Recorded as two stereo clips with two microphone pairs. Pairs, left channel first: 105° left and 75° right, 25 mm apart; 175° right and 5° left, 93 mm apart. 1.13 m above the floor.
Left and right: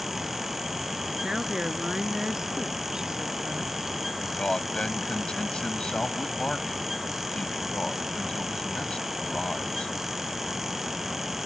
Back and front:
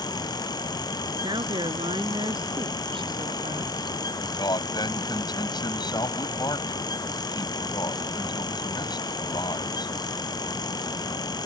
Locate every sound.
1.2 s a woman speaking: 15° right; by 4.0 s 10° right
4.2 s a man speaking: 155° left